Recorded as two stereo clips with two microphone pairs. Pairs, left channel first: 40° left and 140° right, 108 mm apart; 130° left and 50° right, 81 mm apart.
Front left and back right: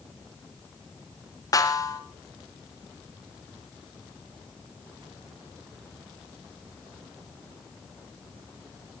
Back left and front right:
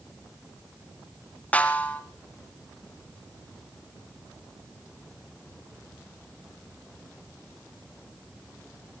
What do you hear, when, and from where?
1.5 s a snare drum: 70° left, 1.6 m